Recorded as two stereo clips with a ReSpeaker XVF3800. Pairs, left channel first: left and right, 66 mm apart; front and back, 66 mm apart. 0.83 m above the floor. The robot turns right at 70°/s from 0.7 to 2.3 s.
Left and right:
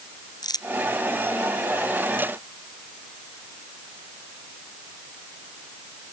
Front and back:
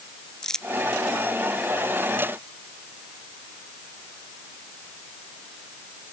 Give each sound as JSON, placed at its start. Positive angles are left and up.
{"t": 0.4, "sound": "crumpling", "azimuth_deg": 80}